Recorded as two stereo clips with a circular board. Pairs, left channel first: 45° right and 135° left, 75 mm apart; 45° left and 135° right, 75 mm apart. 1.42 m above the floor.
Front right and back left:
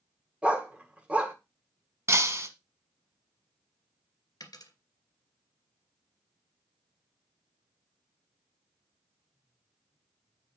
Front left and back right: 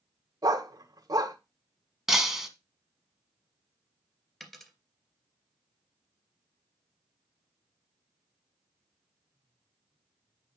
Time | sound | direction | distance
0.4 | a dog barking | 155° right | 1.6 m
2.1 | breaking glass | 140° left | 1.5 m
4.4 | a dropped coin | 40° right | 2 m